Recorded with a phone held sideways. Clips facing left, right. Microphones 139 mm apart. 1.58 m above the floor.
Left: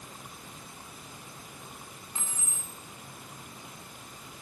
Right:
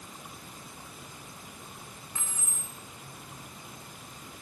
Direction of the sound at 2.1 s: 30° left (ahead or behind).